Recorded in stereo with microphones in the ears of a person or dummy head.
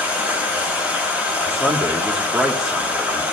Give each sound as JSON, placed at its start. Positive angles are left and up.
{"t": 0.0, "sound": "running water", "side_deg": -5, "distance_m": 4.5}
{"t": 1.5, "sound": "a man speaking", "side_deg": 0, "distance_m": 1.3}